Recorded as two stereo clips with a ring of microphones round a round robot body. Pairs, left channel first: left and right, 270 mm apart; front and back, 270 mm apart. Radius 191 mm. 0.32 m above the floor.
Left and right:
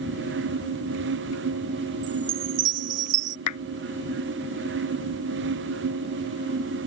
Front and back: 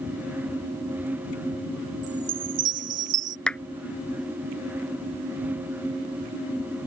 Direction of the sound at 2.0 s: 125° right.